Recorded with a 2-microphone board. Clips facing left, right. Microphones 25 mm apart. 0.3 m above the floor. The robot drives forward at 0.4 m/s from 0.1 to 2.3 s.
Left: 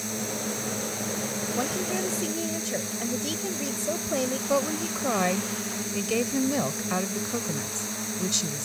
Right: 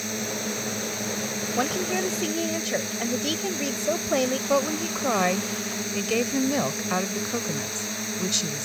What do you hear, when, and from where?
0.0 s a drone: 20° right (ahead or behind)
1.6 s a woman speaking: 30° right (ahead or behind)
4.5 s a woman speaking: 15° right (ahead or behind)